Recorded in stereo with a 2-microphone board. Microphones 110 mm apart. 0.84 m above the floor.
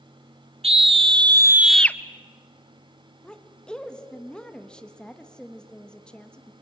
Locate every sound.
0.6 s a scream: 65° right (ahead or behind), 1.2 m; by 2.0 s 25° left (ahead or behind), 0.7 m
3.2 s a woman speaking: 10° left (ahead or behind), 1.1 m